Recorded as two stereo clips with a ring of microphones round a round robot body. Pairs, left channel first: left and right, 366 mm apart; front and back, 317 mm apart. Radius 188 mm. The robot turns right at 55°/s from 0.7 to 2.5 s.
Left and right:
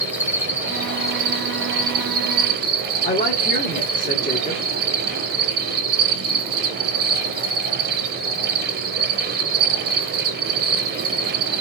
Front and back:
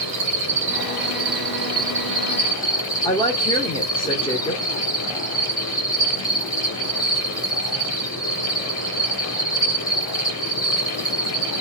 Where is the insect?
170° right, 1.8 m; by 11.6 s 75° right, 1.8 m.